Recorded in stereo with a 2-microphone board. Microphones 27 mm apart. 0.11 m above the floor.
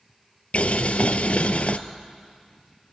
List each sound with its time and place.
0.5 s boiling: 60° left (ahead or behind), 0.8 m